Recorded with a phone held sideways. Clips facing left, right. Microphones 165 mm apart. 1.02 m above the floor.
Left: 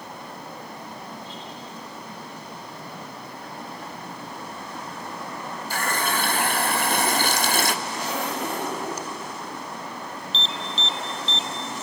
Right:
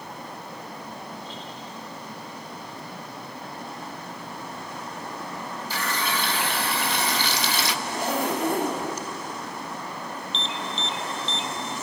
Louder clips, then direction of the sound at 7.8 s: Right 3 dB; 50° right (ahead or behind).